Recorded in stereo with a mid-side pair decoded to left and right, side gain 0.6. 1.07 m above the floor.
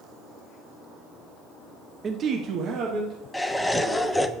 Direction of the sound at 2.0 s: 35° right.